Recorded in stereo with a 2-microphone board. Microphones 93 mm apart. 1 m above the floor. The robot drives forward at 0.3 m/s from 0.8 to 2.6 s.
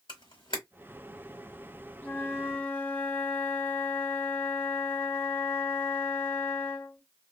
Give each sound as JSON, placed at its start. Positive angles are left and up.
{"t": 0.1, "sound": "a camera shutter", "side_deg": 60, "distance_m": 1.1}
{"t": 2.0, "sound": "a flute", "side_deg": 20, "distance_m": 0.9}